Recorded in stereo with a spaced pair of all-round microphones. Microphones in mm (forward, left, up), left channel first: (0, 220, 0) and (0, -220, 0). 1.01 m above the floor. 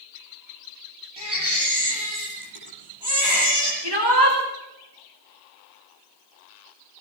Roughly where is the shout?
Right.